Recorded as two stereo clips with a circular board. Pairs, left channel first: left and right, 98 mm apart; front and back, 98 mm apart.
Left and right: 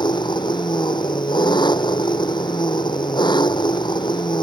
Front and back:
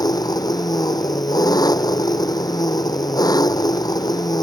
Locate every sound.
0.0 s an engine running: 50° left